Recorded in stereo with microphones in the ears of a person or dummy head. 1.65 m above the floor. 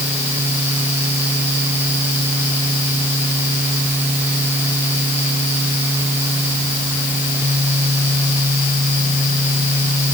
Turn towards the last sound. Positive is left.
No sound to turn to.